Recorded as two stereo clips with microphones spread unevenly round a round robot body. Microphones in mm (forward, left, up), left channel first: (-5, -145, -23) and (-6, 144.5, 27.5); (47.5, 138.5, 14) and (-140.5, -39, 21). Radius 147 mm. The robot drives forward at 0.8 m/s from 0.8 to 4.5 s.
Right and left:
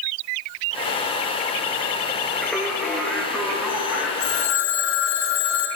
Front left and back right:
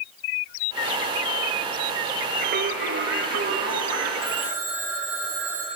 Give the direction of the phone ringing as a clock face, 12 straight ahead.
2 o'clock.